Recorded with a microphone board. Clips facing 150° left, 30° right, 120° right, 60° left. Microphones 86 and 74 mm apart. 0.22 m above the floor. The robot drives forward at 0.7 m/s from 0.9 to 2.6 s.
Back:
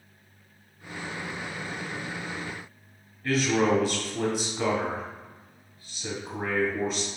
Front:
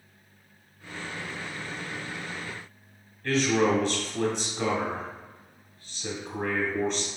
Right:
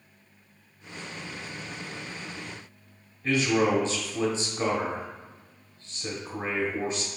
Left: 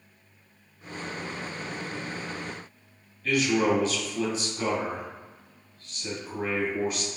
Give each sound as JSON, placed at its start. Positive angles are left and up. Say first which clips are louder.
{"t": 3.2, "sound": "a man speaking", "louder": "even, even", "azimuth_deg": -135, "distance_m": 1.1}